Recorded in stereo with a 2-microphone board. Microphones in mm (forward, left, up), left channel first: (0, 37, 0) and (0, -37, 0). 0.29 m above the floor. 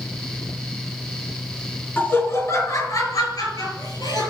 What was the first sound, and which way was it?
Laughter, 30° left (ahead or behind).